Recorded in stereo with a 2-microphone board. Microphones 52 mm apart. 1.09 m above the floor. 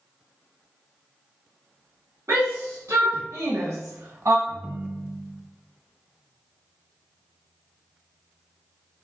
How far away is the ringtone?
About 0.8 m.